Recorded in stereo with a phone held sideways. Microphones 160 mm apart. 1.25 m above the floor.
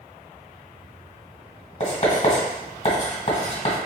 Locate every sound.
1.8 s writing: 45° left (ahead or behind), 1.5 m